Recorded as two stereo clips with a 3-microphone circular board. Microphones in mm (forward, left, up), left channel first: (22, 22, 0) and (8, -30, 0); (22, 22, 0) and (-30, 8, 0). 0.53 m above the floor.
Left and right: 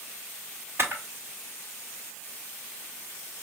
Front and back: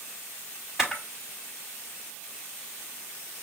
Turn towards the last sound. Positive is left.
turn(degrees=-85)